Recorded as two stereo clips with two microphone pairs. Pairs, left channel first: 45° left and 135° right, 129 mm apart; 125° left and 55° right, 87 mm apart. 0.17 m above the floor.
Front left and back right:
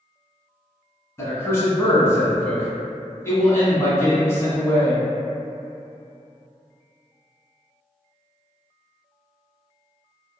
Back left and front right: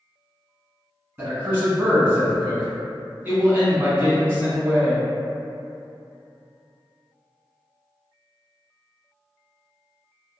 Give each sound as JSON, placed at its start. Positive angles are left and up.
{"t": 1.2, "sound": "a man speaking", "azimuth_deg": -5, "distance_m": 1.2}